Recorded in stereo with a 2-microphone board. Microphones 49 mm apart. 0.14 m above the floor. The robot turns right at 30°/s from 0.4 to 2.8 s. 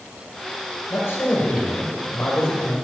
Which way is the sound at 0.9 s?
70° left.